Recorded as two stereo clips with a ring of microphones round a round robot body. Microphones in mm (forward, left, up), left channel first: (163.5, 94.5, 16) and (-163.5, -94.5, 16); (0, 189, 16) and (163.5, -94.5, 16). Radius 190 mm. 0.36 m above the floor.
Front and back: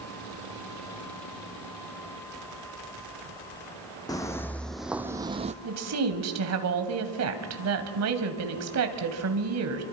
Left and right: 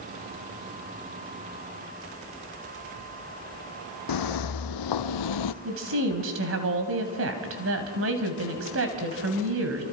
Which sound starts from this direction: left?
Footsteps, at 4.1 s.